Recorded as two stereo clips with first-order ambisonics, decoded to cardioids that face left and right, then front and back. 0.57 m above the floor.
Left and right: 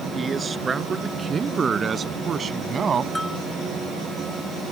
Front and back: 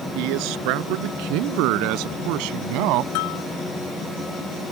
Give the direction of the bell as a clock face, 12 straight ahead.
12 o'clock.